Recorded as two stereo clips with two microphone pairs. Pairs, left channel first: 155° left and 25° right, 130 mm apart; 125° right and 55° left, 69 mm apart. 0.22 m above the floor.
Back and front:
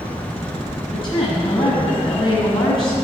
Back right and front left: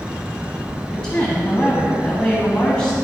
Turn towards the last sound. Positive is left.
turn(degrees=160)